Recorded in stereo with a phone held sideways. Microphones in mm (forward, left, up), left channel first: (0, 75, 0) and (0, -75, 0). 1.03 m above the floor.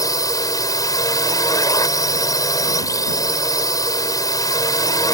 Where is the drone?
25° left (ahead or behind).